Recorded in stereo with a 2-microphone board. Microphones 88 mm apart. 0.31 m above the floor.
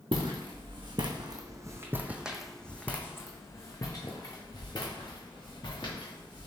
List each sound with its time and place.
0.1 s footsteps: 75° right (ahead or behind), 1.2 m; by 6.5 s 60° left (ahead or behind), 2.5 m